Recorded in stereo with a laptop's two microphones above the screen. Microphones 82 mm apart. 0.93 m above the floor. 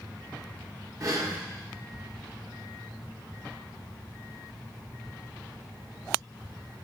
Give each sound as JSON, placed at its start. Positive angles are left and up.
{"t": 1.0, "sound": "breathing", "side_deg": -45, "distance_m": 0.7}